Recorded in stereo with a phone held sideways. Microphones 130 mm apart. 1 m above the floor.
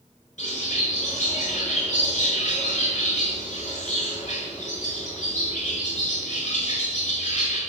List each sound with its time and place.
0.4 s a bird: 65° left (ahead or behind), 8 m